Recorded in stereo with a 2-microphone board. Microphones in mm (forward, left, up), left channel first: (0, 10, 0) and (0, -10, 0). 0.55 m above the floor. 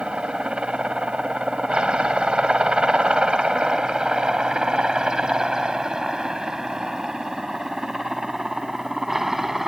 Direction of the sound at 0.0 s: 65° right (ahead or behind).